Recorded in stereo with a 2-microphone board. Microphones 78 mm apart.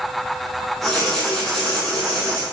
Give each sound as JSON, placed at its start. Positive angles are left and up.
{"t": 0.8, "sound": "writing", "side_deg": 0, "distance_m": 8.5}